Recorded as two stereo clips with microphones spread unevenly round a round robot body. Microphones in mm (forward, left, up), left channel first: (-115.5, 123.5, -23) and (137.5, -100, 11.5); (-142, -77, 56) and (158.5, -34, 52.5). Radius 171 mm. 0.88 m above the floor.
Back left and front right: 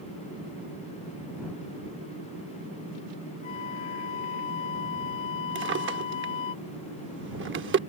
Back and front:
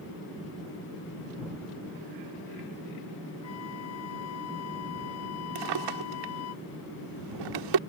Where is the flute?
140° left.